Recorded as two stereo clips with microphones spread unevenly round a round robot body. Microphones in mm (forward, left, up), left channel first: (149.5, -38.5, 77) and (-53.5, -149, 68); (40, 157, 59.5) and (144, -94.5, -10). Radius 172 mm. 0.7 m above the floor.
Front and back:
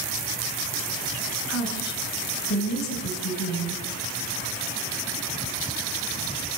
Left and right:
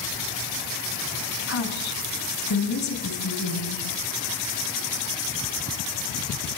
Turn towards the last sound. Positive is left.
turn(degrees=80)